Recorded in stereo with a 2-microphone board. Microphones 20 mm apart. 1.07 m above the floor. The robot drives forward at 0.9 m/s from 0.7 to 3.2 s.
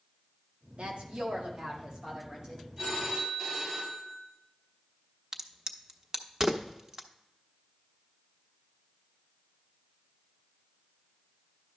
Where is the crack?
25° right (ahead or behind), 0.7 m.